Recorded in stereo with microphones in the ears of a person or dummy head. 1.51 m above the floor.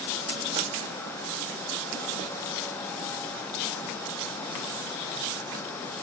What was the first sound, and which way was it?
Only background noise.